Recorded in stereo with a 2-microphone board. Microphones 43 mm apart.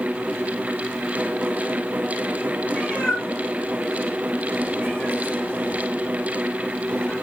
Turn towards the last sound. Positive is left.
turn(degrees=25)  # may be behind; listen again after turning